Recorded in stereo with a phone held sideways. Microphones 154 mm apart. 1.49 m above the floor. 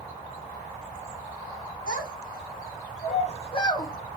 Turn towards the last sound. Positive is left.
turn(degrees=20)  # may be behind; listen again after turning